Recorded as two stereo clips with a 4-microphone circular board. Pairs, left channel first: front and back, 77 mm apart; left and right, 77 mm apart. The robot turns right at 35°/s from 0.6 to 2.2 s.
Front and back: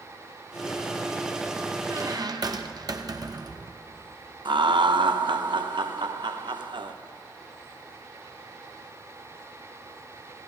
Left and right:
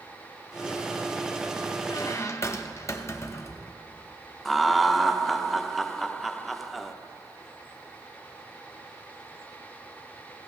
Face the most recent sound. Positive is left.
turn(degrees=180)